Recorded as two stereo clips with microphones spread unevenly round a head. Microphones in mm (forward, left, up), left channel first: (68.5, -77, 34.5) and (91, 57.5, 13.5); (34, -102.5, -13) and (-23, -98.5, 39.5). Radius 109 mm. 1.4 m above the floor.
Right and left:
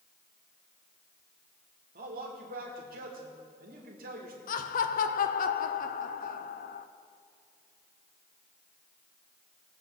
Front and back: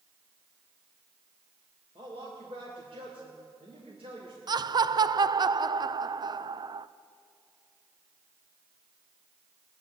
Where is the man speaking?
110° left, 2 m.